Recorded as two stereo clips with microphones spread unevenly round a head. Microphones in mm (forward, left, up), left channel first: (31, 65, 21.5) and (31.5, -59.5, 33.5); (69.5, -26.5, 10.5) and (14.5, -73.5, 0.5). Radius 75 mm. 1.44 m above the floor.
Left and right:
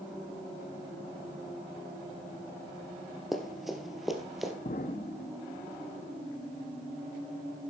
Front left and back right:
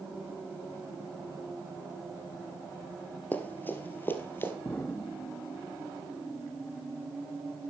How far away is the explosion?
About 1.0 m.